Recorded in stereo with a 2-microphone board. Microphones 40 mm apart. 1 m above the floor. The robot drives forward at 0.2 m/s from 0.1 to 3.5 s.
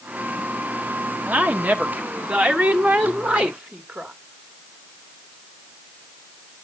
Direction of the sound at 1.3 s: 40° right (ahead or behind).